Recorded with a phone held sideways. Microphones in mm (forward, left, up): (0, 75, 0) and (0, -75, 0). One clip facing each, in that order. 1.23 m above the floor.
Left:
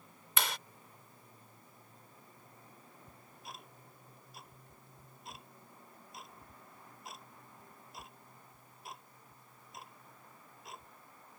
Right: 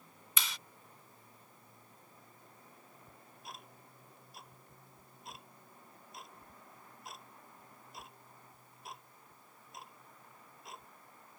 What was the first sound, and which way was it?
A clap, 65° left (ahead or behind).